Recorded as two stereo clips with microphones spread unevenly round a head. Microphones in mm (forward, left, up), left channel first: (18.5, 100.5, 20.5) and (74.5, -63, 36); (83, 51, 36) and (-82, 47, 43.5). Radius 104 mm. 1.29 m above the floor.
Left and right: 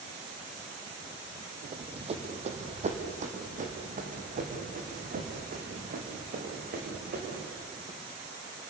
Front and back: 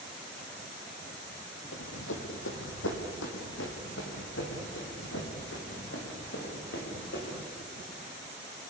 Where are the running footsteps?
20° right, 3 m; by 7.5 s 35° right, 7.5 m.